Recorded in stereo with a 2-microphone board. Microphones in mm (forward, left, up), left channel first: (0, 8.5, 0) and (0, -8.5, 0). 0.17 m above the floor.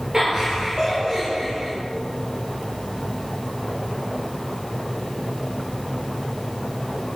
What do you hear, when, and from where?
0.1 s laughter: 35° right (ahead or behind), 3.5 m